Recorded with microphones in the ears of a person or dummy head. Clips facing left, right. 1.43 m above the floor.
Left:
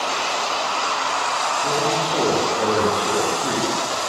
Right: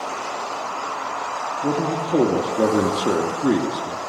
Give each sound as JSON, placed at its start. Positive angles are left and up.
{"t": 1.6, "sound": "a man speaking", "side_deg": -75, "distance_m": 3.0}